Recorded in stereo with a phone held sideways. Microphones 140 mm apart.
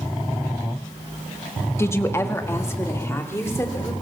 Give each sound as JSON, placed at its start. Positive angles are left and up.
{"t": 1.8, "sound": "a woman speaking", "side_deg": 20, "distance_m": 1.2}